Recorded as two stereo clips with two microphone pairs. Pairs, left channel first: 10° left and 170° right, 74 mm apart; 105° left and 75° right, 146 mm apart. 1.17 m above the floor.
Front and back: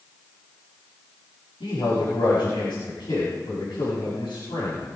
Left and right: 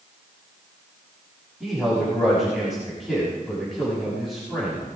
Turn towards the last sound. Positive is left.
turn(degrees=15)